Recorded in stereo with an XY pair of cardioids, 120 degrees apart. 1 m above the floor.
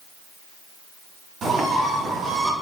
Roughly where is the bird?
Ahead right.